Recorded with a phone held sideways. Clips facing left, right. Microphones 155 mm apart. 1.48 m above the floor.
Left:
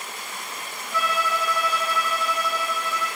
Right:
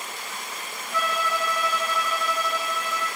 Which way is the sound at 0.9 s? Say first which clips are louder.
Left 1 dB; 5° left (ahead or behind).